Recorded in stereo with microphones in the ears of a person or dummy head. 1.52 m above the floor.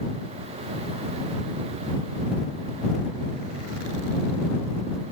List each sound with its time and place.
Only background noise.